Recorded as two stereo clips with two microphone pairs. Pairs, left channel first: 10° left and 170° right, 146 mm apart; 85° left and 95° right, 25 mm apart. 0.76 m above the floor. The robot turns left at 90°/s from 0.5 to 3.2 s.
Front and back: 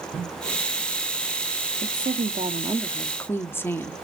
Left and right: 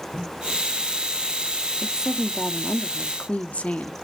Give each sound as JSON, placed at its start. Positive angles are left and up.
{"t": 1.8, "sound": "a woman speaking", "azimuth_deg": -150, "distance_m": 1.6}